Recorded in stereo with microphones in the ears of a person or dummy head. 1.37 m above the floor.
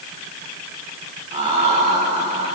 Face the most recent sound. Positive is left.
turn(degrees=-30)  # may be behind; listen again after turning